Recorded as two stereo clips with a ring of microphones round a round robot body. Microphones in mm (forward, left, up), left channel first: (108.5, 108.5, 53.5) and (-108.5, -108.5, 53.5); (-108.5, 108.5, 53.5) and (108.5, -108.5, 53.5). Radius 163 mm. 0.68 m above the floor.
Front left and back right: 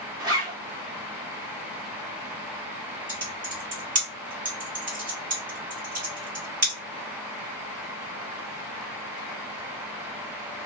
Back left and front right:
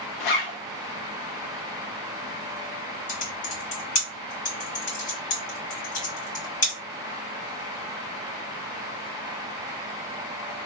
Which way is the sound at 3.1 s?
165° left.